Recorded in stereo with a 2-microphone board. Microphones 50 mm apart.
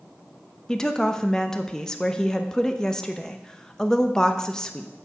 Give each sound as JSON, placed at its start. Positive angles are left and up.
{"t": 0.7, "sound": "a woman speaking", "side_deg": 15, "distance_m": 0.7}